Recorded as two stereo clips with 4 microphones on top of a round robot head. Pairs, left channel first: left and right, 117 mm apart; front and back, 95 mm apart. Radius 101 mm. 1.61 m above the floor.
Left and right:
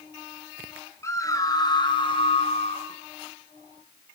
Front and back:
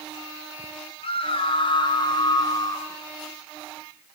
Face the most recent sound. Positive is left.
turn(degrees=55)